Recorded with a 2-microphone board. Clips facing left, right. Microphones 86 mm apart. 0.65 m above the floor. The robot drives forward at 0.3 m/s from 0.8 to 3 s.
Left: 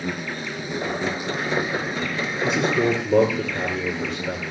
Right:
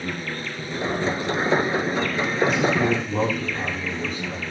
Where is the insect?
15° left (ahead or behind), 4 m.